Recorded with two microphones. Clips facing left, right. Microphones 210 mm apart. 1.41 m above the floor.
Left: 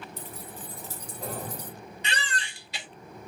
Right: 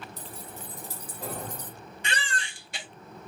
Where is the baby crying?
55° right (ahead or behind), 1.5 m.